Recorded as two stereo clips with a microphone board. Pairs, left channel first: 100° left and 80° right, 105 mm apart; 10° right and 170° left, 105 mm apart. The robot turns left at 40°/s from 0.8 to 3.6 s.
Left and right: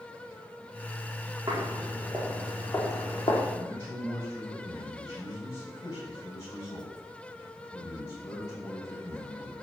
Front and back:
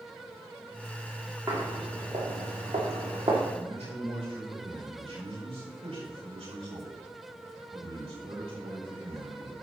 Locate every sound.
1.5 s footsteps: 135° right, 5 m; by 3.4 s 135° left, 4 m
3.5 s a man speaking: 165° left, 6.5 m; by 9.5 s 160° left, 6.5 m